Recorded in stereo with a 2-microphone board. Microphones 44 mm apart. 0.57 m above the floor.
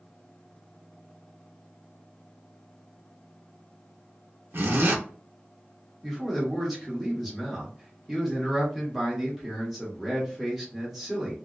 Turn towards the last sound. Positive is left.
turn(degrees=-5)  # may be behind; listen again after turning